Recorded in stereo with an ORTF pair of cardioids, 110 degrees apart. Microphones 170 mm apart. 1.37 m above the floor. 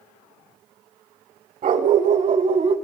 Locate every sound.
1.6 s a dog barking: 55° right, 3 m; by 2.8 s 35° right, 2.5 m